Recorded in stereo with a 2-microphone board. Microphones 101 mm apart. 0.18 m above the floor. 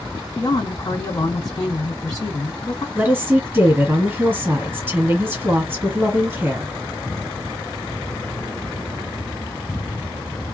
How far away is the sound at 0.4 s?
About 2 m.